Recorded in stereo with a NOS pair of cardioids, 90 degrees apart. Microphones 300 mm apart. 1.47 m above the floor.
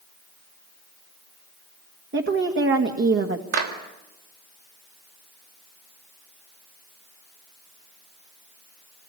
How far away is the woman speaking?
About 2 m.